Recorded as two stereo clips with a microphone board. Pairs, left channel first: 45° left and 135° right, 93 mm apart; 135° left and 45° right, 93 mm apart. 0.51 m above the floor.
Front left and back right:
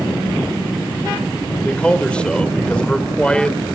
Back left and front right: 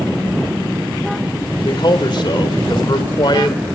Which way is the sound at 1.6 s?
120° left.